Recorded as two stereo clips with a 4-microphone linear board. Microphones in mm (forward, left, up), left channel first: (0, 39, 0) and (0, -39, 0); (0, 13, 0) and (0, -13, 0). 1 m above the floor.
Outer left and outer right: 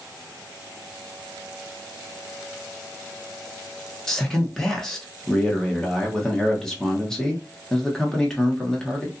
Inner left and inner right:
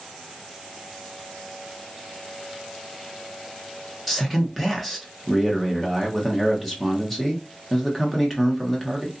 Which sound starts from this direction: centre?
A man speaking, at 4.1 s.